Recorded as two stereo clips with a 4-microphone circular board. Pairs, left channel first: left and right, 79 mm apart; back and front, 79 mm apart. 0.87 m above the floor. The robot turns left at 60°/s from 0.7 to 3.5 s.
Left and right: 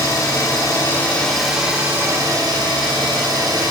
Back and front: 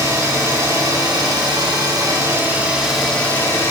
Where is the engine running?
45° left, 1.9 m; by 3.7 s 120° right, 1.9 m.